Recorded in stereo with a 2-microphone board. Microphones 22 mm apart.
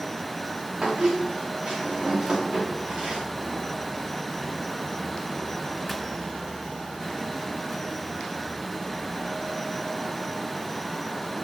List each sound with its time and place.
0.8 s a squeak: 40° right (ahead or behind), 5 m